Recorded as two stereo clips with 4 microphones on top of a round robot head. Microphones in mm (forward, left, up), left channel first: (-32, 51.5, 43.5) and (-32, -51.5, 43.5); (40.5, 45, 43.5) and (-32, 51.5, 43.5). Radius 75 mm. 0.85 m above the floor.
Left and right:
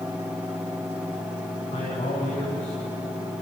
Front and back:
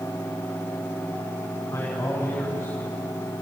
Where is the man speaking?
50° left, 5 m; by 3.4 s 65° left, 6 m.